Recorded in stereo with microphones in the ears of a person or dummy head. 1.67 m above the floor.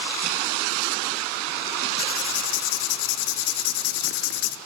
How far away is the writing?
About 0.5 m.